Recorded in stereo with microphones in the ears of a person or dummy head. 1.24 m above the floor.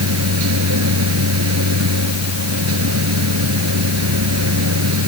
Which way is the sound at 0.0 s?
85° right.